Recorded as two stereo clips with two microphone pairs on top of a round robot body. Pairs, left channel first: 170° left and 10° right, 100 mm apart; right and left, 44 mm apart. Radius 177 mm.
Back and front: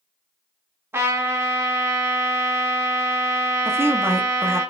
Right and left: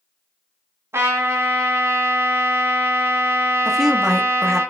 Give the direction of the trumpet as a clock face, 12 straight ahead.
10 o'clock.